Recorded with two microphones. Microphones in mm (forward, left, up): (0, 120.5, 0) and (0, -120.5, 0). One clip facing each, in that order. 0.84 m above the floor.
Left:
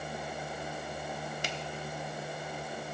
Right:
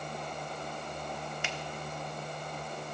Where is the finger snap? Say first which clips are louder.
Left 1 dB; 40° left (ahead or behind), 1.2 m.